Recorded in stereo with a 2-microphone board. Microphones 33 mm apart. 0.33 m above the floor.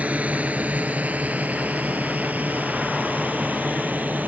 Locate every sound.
0.0 s a drone: 45° right (ahead or behind); by 4.3 s 55° right (ahead or behind)